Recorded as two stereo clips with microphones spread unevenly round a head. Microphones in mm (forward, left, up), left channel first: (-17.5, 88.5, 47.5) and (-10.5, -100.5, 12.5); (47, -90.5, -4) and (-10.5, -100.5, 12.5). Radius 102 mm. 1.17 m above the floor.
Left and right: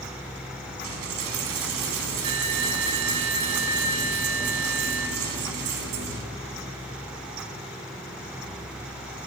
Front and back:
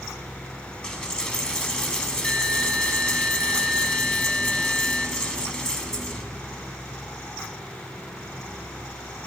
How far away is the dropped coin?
About 1.2 m.